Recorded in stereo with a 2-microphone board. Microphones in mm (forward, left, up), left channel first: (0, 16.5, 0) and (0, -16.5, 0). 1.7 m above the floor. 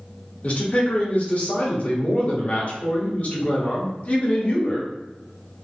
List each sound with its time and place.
0.4 s a man speaking: 45° left (ahead or behind), 0.9 m